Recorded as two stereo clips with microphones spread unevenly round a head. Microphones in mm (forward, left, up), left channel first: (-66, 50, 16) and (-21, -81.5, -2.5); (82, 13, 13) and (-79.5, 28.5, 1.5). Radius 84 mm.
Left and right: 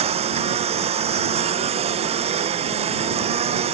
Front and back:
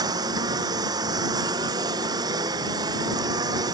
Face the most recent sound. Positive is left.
turn(degrees=-115)